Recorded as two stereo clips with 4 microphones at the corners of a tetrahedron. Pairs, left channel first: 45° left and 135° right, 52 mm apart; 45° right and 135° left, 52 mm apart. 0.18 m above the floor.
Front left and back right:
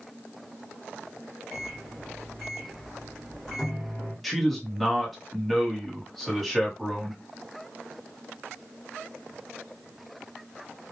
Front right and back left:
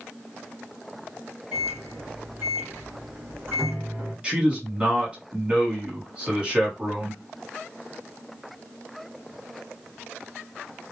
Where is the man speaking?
135° left, 1.2 m.